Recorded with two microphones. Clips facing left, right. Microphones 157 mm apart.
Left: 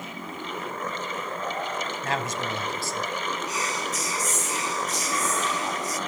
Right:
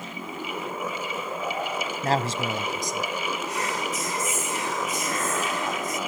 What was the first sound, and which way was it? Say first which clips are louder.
A man speaking: right 6 dB; 40° right (ahead or behind).